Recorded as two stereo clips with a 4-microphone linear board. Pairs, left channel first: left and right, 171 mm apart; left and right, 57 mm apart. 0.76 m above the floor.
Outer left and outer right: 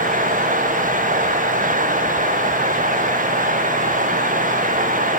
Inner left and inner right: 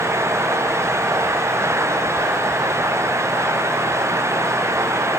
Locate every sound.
Only background noise.